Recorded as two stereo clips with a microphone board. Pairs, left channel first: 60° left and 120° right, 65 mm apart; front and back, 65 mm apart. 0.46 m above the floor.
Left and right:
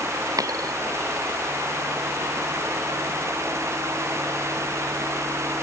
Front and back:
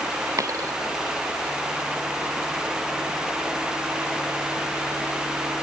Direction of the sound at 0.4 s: 145° right.